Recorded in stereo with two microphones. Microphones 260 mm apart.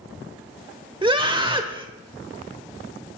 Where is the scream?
20° right (ahead or behind), 0.9 m.